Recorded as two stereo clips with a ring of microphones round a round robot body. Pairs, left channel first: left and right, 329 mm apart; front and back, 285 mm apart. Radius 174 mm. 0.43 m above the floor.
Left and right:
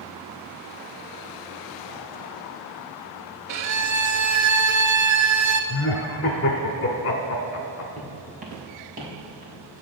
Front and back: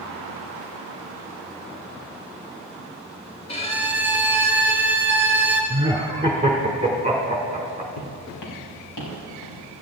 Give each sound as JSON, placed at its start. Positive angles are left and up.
{"t": 3.5, "sound": "a violin", "azimuth_deg": -70, "distance_m": 1.0}
{"t": 5.7, "sound": "laughter", "azimuth_deg": 115, "distance_m": 1.3}
{"t": 8.0, "sound": "footsteps", "azimuth_deg": -20, "distance_m": 3.5}